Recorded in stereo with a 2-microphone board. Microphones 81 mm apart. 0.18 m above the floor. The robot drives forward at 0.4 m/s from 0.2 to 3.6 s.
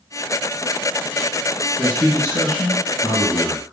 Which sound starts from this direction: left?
A man speaking, at 1.8 s.